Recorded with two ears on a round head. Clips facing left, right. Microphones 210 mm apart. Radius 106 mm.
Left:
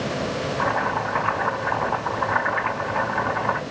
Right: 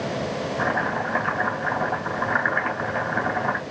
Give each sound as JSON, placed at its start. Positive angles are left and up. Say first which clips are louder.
{"t": 0.6, "sound": "chopping", "louder": "even", "side_deg": -70, "distance_m": 2.5}